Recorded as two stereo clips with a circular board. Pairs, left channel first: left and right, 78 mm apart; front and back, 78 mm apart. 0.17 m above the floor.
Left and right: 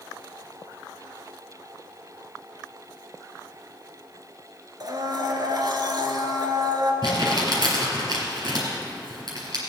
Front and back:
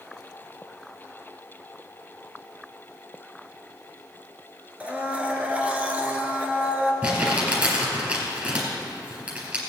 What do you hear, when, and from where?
4.8 s a blender: 110° right, 1.3 m
7.0 s crumpling: 110° right, 4 m